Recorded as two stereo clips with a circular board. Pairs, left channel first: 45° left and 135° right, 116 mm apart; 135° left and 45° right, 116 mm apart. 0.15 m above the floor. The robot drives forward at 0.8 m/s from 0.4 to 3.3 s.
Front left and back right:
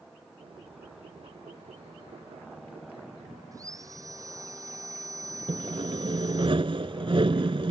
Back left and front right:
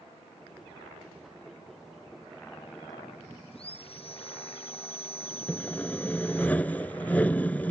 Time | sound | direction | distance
3.5 | sawing | 165° left | ?
5.5 | sawing | 150° right | ?